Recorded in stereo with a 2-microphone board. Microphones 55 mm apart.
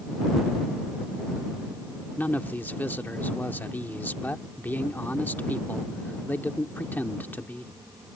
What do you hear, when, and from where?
2.2 s a man speaking: 35° left (ahead or behind)